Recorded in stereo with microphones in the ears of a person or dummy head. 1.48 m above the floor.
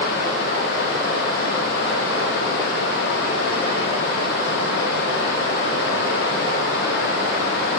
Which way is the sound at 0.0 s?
60° left (ahead or behind).